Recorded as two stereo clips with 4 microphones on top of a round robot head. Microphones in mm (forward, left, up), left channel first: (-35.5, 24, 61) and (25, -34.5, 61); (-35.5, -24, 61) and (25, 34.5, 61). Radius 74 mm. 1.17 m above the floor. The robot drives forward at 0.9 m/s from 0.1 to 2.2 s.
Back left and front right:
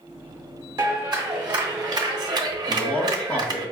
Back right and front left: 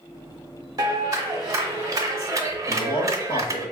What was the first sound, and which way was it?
A clap, straight ahead.